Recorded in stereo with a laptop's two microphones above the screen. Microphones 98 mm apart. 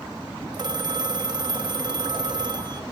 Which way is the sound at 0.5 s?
50° right (ahead or behind).